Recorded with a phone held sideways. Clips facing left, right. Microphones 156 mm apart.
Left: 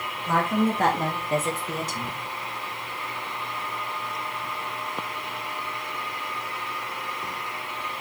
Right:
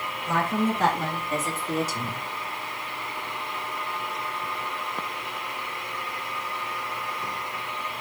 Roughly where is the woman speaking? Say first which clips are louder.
Left 2 dB; left.